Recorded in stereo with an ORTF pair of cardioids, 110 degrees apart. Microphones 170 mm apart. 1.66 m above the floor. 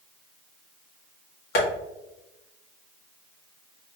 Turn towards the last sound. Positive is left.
turn(degrees=60)